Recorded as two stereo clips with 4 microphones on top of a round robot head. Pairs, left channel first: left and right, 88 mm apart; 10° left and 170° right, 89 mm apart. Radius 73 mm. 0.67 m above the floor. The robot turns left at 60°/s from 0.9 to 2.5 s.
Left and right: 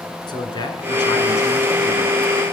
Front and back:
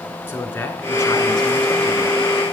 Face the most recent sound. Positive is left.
turn(degrees=-25)